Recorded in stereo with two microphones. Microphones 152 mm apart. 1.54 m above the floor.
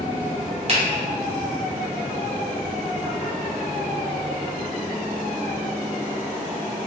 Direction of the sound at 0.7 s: 40° right (ahead or behind).